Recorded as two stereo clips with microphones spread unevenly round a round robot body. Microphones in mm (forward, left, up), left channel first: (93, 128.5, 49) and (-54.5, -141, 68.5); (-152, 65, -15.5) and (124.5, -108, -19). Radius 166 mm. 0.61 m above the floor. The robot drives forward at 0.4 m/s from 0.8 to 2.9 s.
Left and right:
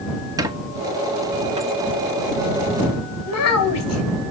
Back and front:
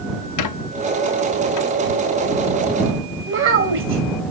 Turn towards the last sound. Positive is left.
turn(degrees=25)